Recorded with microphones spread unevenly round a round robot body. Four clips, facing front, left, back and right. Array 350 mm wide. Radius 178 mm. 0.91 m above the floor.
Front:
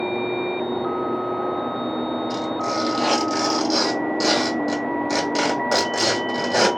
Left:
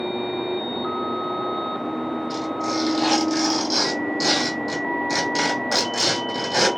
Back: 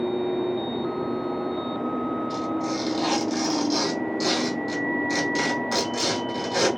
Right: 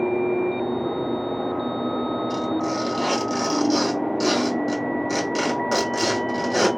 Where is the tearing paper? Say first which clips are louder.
Right 1 dB, front 3 dB; 10° right, 1.9 m.